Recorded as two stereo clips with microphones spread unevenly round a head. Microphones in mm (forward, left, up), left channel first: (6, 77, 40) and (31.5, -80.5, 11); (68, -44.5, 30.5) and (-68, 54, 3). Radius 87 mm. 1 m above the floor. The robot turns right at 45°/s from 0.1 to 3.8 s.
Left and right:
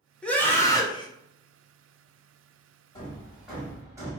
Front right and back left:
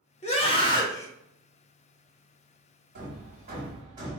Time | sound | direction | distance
0.2 | a scream | 5° left | 0.9 m
3.0 | hammering | 170° left | 1.1 m